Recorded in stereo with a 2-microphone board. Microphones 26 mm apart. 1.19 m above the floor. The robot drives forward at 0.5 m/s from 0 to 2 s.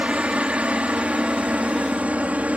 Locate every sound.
0.0 s a helicopter: 55° right (ahead or behind); by 2.6 s 60° right (ahead or behind)